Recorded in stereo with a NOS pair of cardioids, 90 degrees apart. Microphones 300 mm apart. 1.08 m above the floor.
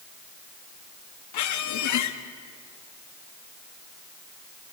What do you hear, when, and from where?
1.3 s a squeak: 70° left, 1.4 m